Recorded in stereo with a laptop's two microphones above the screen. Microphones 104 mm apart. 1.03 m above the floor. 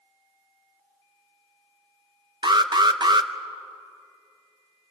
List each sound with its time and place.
2.4 s an alarm: 45° right (ahead or behind), 0.7 m